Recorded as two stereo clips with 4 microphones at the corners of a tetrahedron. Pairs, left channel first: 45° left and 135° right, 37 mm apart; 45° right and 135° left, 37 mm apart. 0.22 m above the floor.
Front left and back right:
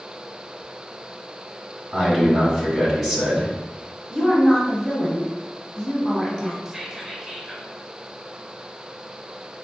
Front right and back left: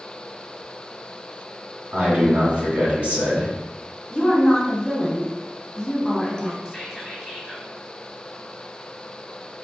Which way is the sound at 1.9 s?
135° left.